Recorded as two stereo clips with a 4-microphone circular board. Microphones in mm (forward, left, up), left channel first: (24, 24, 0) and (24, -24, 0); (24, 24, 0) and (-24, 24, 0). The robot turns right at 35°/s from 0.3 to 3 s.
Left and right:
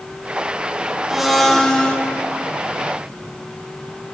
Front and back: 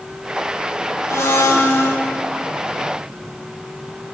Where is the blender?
10° right, 0.7 m; by 2.0 s 20° left, 0.7 m.